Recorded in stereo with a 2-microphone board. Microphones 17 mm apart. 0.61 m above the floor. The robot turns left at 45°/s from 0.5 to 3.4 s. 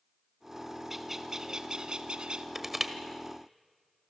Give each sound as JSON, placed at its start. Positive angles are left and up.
{"t": 0.9, "sound": "a bird", "azimuth_deg": -15, "distance_m": 1.2}
{"t": 2.5, "sound": "crushing", "side_deg": -25, "distance_m": 1.8}